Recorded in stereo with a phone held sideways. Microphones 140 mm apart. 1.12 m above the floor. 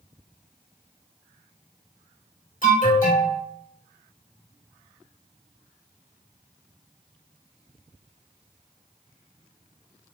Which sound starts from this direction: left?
An alarm, at 2.6 s.